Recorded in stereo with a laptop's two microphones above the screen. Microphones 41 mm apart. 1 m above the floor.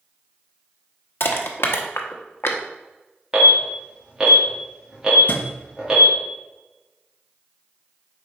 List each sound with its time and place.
1.2 s crushing: 70° left (ahead or behind), 0.9 m
3.3 s an alarm: 20° right (ahead or behind), 2.5 m
5.3 s a thud: 40° left (ahead or behind), 1.3 m